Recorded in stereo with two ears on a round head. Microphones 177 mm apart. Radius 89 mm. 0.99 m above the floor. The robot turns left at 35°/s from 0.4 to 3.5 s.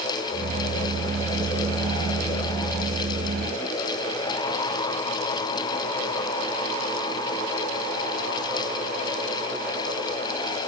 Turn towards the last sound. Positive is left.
No sound to turn to.